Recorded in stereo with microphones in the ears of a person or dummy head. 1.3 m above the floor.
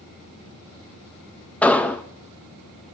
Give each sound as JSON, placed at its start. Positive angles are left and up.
{"t": 1.6, "sound": "an explosion", "side_deg": 5, "distance_m": 0.8}